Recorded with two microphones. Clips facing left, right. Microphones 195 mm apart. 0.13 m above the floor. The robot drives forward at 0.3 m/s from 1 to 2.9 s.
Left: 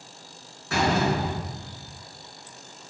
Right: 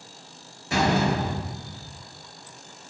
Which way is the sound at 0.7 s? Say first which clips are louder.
Right 1 dB; 20° right (ahead or behind).